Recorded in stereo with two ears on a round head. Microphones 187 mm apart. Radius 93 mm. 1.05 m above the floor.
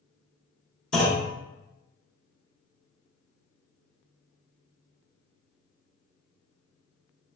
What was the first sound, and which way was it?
A clunk, 5° left (ahead or behind).